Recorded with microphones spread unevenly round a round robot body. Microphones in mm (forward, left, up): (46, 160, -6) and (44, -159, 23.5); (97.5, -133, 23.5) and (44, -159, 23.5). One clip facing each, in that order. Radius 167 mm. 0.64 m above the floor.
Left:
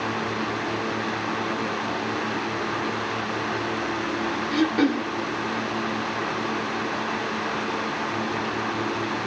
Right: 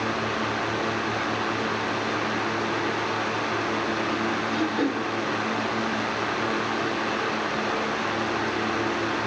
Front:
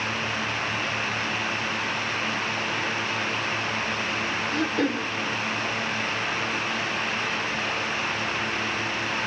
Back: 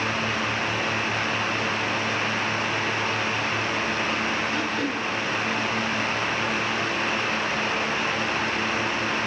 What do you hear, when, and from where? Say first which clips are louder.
4.5 s throat clearing: left 6 dB, front 1 dB; 60° left, 1.4 m